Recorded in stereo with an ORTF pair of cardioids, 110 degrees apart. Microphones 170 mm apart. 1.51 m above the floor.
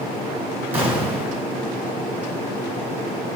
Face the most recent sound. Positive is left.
turn(degrees=-10)